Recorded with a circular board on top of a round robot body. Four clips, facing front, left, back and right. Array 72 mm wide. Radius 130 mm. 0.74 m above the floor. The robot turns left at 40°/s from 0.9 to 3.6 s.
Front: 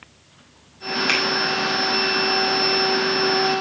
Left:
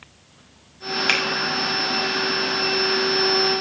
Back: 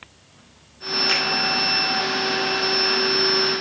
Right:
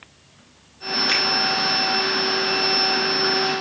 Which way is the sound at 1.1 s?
75° left.